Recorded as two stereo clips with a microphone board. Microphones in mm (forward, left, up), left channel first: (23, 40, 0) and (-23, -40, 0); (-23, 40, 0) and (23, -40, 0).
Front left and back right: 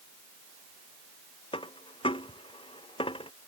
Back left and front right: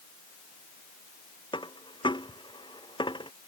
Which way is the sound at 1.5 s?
85° left.